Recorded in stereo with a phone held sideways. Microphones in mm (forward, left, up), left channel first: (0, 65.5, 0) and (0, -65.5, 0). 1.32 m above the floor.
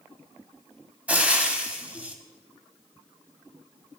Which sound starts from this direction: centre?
Frying, at 1.1 s.